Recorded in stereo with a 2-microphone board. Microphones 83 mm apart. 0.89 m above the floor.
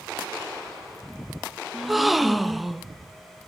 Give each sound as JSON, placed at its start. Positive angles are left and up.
{"t": 1.7, "sound": "a gasp", "side_deg": 0, "distance_m": 0.6}